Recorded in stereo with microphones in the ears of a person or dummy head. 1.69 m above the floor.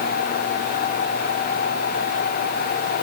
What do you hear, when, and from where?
Only background noise.